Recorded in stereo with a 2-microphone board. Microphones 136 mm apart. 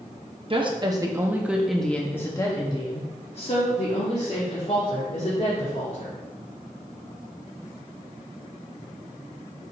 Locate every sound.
0.5 s a woman speaking: 40° right (ahead or behind), 1.0 m; by 6.1 s 65° left (ahead or behind), 2.5 m